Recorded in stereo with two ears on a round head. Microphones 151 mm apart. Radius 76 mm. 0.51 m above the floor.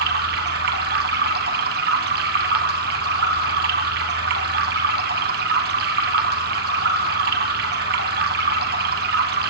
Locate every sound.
0.0 s running water: 65° right (ahead or behind), 3 m